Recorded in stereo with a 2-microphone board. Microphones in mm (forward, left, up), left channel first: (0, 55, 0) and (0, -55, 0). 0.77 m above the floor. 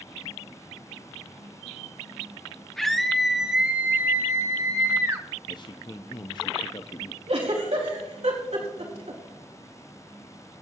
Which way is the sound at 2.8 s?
5° left (ahead or behind).